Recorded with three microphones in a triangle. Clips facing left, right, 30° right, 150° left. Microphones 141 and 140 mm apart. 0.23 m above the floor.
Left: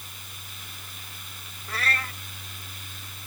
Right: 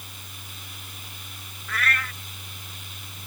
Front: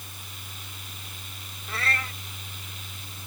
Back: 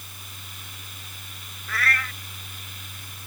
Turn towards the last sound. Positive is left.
turn(degrees=30)